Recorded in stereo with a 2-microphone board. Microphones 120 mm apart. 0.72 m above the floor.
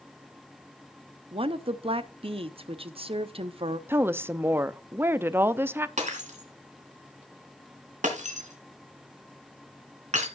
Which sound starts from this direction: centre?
A woman speaking, at 3.9 s.